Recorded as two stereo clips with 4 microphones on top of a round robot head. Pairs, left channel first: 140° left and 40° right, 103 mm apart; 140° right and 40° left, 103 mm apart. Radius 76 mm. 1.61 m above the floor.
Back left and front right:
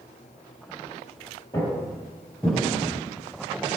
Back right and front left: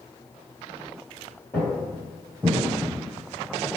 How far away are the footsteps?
About 1.7 m.